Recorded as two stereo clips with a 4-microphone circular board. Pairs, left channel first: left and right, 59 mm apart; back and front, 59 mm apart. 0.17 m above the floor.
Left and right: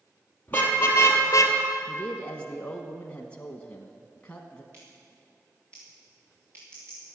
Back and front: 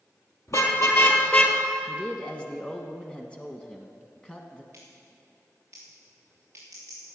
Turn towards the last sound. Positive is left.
turn(degrees=-45)